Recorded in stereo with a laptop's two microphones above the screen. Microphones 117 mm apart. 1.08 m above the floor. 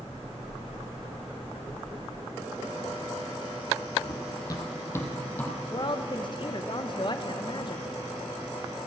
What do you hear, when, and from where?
4.0 s running footsteps: 40° left (ahead or behind), 1.4 m; by 5.5 s 15° left (ahead or behind), 1.9 m
5.7 s a woman speaking: 45° left (ahead or behind), 0.8 m